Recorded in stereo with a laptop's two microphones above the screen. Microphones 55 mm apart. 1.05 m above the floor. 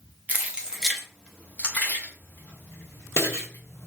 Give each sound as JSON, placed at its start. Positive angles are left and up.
{"t": 0.3, "sound": "keys jangling", "side_deg": -30, "distance_m": 0.7}